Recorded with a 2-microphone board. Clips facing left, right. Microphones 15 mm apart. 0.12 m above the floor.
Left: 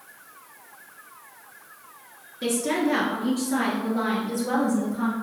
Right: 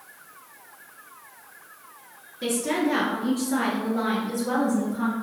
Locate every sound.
2.4 s a woman speaking: 15° left (ahead or behind), 1.5 m